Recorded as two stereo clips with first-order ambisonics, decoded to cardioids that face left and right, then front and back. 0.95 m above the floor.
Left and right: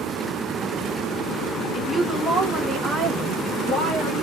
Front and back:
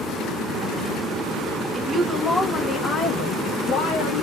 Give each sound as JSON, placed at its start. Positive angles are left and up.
{"t": 1.7, "sound": "a woman speaking", "azimuth_deg": 180, "distance_m": 0.6}